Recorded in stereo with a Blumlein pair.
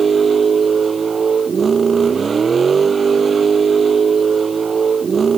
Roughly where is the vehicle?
Ahead.